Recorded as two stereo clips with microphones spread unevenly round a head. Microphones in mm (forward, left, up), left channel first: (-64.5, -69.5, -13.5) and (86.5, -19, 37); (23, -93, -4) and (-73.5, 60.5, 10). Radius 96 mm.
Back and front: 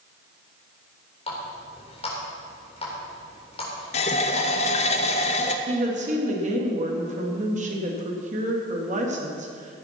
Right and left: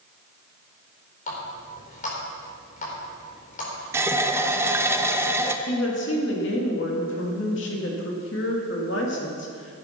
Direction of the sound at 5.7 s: 25° right.